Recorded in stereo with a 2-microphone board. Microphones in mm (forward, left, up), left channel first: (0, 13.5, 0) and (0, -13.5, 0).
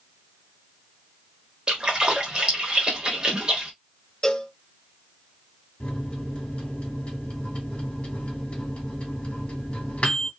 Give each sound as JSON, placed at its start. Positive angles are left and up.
{"t": 1.7, "sound": "a splash", "side_deg": -30, "distance_m": 1.1}
{"t": 4.2, "sound": "a cowbell", "side_deg": 25, "distance_m": 0.5}
{"t": 5.8, "sound": "a microwave", "side_deg": 45, "distance_m": 1.2}